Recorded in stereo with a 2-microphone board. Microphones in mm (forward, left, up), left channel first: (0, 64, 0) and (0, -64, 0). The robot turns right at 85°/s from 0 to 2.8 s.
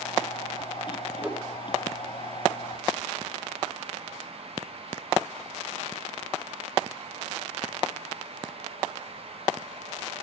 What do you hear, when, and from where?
1.2 s a whoosh: 5° right (ahead or behind), 1.4 m; by 1.4 s 25° right (ahead or behind), 1.4 m